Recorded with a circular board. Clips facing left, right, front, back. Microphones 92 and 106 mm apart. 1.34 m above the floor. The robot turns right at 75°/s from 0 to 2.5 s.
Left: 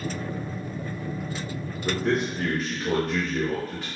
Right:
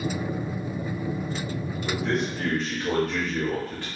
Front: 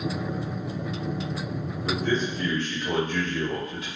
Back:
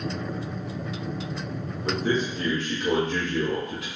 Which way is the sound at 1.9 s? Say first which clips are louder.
Left 2 dB, back 1 dB; 135° left.